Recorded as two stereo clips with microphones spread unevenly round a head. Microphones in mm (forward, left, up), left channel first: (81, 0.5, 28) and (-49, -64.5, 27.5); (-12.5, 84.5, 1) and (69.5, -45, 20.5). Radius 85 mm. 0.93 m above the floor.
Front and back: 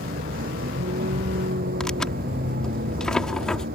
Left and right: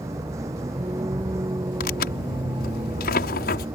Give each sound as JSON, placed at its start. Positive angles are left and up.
{"t": 0.0, "sound": "a vehicle", "azimuth_deg": -130}
{"t": 1.8, "sound": "tearing paper", "azimuth_deg": 115}